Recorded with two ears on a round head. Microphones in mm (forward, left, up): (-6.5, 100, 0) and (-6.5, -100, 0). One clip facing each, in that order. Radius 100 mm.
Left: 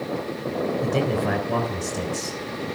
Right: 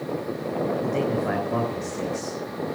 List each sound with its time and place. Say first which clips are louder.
0.8 s a man speaking: left 1 dB; 55° left (ahead or behind), 3.5 m